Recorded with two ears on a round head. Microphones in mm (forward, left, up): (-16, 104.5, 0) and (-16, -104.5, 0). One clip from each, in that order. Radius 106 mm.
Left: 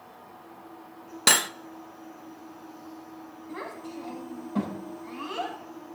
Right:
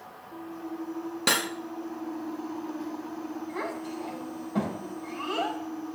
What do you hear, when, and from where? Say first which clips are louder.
1.3 s cutlery clinking: left 4 dB; 30° left (ahead or behind), 0.6 m
3.5 s a child speaking: right 2 dB; centre (ahead or behind), 5 m